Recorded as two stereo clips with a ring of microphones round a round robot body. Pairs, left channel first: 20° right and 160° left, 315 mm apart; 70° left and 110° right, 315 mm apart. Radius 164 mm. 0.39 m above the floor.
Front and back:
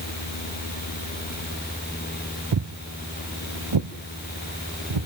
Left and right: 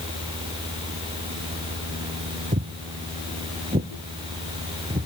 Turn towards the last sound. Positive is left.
turn(degrees=170)